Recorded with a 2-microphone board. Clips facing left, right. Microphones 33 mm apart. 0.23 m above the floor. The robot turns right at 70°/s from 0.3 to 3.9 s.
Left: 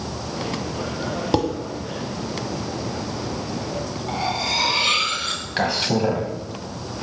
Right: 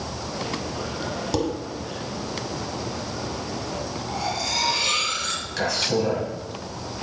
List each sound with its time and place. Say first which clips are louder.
1.3 s dishes clattering: left 4 dB; 30° left (ahead or behind), 0.8 m; by 1.5 s 35° left (ahead or behind), 0.8 m
4.1 s cutlery clinking: left 4 dB; 30° left (ahead or behind), 1.0 m
5.6 s a man speaking: left 3 dB; 35° left (ahead or behind), 1.4 m